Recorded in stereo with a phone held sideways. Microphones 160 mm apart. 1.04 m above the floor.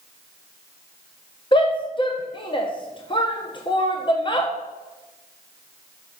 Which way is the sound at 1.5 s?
30° left (ahead or behind).